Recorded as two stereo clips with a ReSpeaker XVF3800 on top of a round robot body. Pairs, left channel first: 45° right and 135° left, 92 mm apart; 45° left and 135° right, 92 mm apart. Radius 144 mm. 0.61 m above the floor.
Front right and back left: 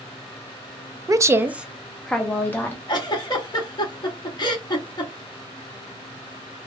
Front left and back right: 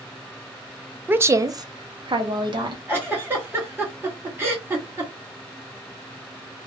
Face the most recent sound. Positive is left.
turn(degrees=-75)